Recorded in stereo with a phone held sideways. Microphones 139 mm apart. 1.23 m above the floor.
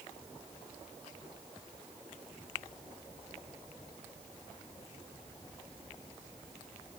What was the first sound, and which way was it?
Only background noise.